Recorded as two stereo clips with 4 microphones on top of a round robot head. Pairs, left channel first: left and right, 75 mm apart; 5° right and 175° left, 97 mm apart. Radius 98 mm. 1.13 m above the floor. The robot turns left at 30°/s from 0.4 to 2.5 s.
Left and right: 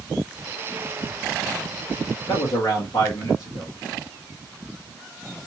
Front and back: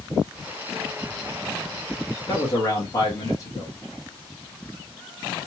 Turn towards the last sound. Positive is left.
turn(degrees=45)